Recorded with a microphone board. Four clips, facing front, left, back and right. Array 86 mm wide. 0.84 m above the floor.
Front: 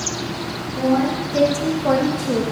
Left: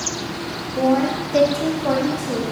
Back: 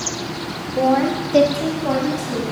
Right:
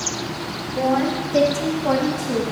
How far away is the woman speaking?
About 1.4 m.